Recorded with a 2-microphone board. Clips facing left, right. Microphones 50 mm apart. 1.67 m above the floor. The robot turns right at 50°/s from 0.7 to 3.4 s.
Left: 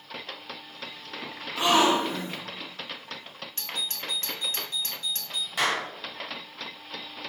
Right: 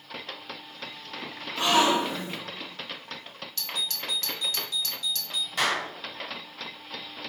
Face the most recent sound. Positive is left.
turn(degrees=5)  # may be behind; listen again after turning